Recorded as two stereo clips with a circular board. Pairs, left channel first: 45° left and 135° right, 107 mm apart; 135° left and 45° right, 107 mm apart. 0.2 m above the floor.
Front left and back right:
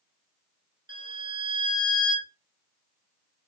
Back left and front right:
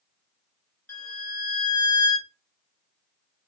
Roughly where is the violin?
Behind.